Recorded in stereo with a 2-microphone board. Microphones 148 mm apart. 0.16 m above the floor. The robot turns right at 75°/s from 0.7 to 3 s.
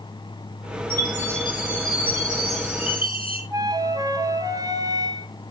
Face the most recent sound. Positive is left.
turn(degrees=-25)  # may be behind; listen again after turning